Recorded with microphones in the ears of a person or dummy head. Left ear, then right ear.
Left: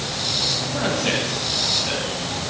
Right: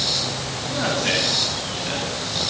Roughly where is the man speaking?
Centre.